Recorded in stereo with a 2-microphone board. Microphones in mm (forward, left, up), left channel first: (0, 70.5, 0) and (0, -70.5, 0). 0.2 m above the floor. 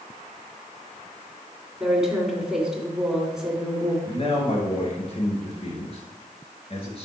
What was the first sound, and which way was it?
A woman speaking, 5° right (ahead or behind).